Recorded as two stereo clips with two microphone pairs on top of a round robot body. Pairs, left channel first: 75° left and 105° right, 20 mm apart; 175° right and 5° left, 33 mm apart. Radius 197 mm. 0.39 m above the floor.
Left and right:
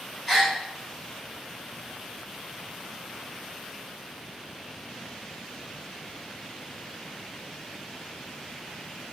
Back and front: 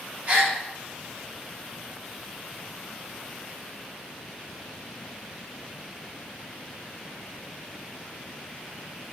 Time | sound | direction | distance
0.3 | a gasp | 15° right | 3 m